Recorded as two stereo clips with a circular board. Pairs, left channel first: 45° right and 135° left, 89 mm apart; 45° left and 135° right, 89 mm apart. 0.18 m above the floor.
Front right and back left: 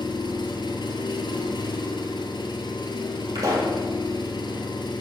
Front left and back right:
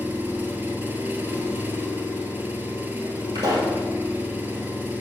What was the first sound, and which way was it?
An engine running, 70° right.